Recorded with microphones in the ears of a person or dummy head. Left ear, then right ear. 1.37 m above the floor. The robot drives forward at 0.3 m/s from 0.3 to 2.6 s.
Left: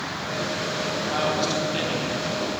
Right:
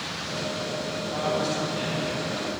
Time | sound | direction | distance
1.1 | a man speaking | 50° left (ahead or behind) | 1.0 m